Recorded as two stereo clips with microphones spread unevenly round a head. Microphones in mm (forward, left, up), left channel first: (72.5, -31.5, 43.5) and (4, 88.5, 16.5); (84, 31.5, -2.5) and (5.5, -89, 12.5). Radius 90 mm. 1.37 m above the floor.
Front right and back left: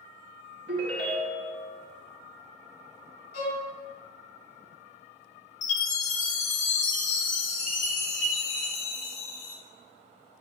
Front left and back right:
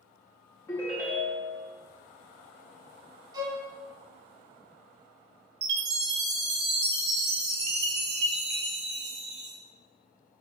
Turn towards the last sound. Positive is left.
turn(degrees=-115)